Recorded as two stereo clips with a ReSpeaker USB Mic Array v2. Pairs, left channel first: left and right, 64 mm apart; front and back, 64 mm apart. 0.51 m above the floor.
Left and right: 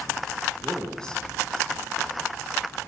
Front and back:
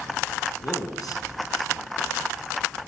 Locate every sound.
0.6 s a man speaking: 15° left, 4.5 m